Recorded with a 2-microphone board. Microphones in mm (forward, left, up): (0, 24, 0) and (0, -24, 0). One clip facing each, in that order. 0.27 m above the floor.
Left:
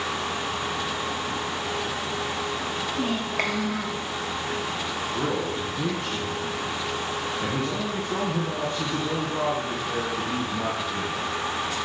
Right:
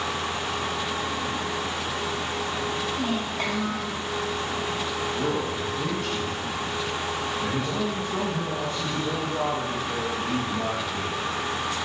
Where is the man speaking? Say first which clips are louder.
Left 2 dB; 65° left (ahead or behind), 3 m.